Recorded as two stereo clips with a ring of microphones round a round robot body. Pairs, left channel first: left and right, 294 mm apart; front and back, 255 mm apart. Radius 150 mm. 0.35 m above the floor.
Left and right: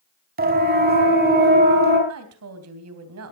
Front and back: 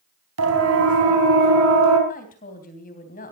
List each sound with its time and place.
0.4 s a siren: 150° right, 4 m; by 2.0 s 145° right, 5.5 m
2.1 s a woman speaking: 60° right, 3 m